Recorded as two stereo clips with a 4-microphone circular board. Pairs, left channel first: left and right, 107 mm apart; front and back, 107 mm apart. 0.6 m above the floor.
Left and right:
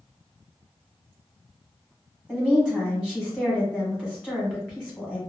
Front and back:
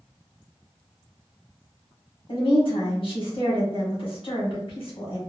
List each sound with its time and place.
2.3 s a woman speaking: 10° right, 1.4 m